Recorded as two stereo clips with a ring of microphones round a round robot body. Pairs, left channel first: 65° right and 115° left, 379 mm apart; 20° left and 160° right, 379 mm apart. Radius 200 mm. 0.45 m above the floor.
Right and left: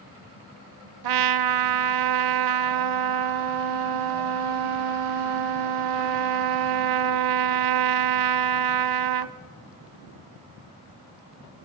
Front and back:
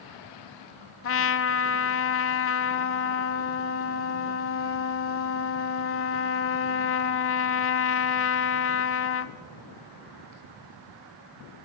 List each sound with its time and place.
1.0 s a trumpet: 80° left, 0.8 m